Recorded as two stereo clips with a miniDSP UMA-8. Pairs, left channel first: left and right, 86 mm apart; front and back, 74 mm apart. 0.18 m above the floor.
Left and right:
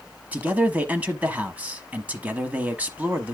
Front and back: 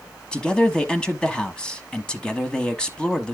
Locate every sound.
0.3 s a man speaking: 55° right, 1.0 m